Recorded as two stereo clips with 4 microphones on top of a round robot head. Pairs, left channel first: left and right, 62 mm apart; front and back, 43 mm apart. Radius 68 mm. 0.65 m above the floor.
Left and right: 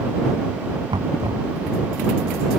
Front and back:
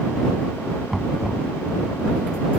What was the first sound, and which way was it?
Knocking, 85° right.